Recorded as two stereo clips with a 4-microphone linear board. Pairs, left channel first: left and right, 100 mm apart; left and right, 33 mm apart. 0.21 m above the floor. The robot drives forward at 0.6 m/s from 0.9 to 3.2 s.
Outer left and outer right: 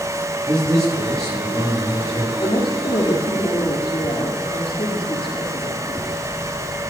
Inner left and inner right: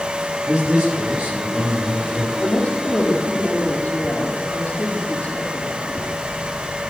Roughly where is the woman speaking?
Left.